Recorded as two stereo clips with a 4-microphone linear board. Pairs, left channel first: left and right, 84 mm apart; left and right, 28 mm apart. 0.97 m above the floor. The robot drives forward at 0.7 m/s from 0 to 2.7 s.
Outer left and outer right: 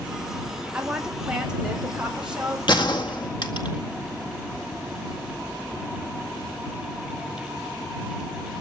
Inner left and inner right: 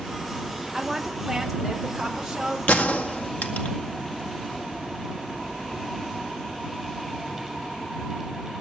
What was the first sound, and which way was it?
A woman speaking, 10° right (ahead or behind).